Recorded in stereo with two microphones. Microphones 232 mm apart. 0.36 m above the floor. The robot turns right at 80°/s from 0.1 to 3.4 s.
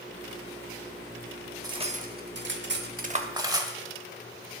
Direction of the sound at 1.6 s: 15° right (ahead or behind).